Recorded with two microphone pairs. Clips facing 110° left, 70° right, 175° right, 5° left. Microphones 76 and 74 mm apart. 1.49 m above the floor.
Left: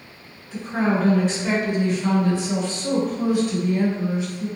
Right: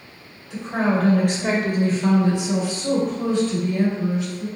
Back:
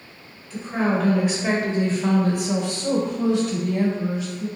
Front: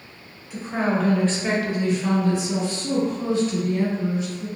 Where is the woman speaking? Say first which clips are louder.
Right 1 dB, back 1 dB; 75° right, 1.0 m; by 4.5 s 175° left, 1.5 m.